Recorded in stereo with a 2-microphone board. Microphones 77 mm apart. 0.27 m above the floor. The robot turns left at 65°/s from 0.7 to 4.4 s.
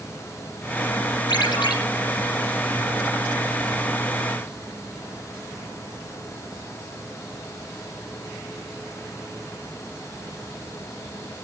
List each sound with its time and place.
1.3 s a ringtone: 75° left (ahead or behind), 5.5 m